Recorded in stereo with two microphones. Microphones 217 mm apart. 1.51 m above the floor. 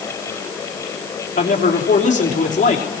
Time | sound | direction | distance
1.4 | a man speaking | 35° left (ahead or behind) | 3.5 m